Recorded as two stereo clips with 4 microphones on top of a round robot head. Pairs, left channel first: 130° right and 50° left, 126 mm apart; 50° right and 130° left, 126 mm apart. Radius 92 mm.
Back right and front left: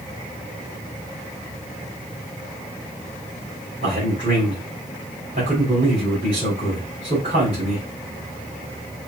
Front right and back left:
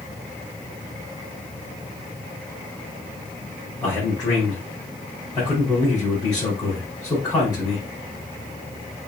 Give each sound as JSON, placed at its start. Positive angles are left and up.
{"t": 3.8, "sound": "a man speaking", "azimuth_deg": 20, "distance_m": 3.5}